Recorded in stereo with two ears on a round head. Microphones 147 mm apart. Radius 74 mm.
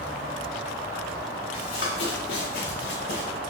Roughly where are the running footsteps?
Left.